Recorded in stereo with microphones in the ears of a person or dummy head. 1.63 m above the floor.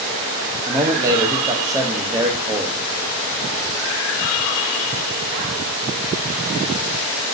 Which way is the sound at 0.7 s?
15° right (ahead or behind).